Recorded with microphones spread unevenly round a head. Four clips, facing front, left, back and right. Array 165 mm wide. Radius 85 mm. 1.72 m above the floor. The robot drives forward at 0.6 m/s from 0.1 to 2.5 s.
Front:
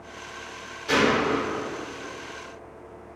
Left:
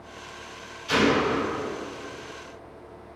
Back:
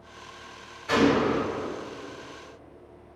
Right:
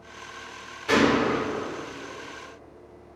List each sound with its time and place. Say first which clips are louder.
0.9 s a gunshot: right 1 dB, even; 60° right, 6.5 m; by 1.4 s 65° right, 6.5 m